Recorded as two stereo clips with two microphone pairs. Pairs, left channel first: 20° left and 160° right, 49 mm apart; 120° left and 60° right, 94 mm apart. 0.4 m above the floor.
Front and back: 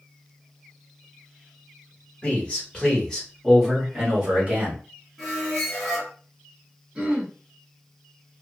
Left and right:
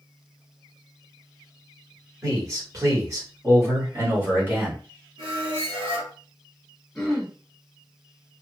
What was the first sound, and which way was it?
A man speaking, 25° right.